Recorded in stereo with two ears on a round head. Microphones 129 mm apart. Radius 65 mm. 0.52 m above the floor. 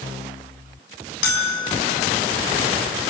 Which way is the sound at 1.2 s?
75° left (ahead or behind).